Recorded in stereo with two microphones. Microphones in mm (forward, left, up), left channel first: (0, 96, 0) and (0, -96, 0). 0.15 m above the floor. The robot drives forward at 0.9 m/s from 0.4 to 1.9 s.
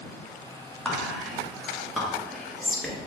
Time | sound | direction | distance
0.8 | whispering | 5° left (ahead or behind) | 1.2 m